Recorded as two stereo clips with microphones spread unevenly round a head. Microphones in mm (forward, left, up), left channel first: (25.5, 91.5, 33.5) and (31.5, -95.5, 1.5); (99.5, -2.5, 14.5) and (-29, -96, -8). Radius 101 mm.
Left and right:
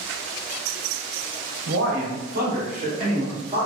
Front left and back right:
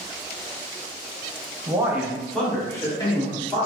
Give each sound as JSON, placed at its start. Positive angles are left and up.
{"t": 1.7, "sound": "a man speaking", "azimuth_deg": -75, "distance_m": 0.9}